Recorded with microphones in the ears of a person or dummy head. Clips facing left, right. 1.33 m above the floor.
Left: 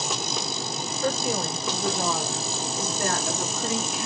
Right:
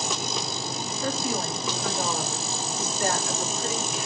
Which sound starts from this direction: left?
A woman speaking, at 1.0 s.